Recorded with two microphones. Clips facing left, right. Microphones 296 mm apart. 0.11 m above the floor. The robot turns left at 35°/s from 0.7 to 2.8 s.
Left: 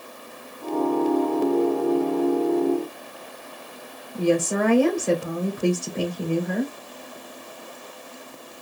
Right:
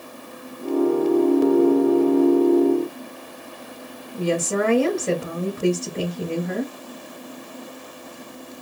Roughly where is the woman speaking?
Right.